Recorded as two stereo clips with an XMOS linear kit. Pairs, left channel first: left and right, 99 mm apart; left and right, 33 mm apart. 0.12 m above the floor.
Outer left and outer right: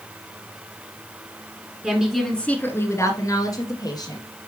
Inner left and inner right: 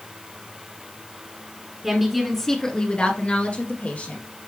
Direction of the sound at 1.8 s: 10° right (ahead or behind).